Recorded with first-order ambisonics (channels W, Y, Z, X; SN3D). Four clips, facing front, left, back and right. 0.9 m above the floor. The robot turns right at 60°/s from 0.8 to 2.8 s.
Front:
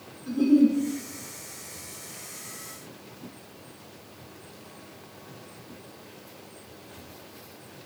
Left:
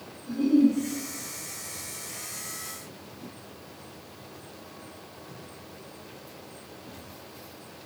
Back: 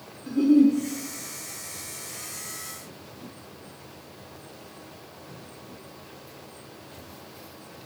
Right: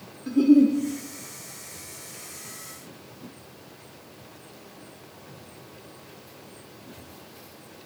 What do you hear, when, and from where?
0.3 s a giggle: 105° right, 1.0 m